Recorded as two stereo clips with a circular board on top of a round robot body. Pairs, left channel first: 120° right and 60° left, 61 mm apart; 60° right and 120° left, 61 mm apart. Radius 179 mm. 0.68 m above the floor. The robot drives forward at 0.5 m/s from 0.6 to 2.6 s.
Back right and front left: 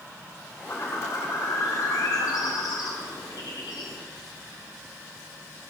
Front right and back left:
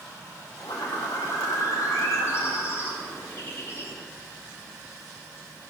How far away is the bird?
About 1.3 m.